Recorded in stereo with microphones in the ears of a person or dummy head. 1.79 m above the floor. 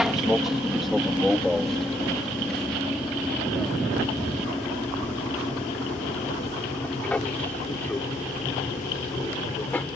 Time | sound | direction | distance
0.0 | an aircraft | centre (ahead or behind) | ?